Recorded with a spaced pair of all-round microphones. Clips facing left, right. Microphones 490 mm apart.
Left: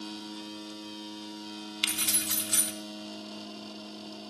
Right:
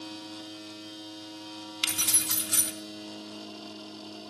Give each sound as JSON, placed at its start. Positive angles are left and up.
{"t": 1.8, "sound": "keys jangling", "side_deg": -60, "distance_m": 0.7}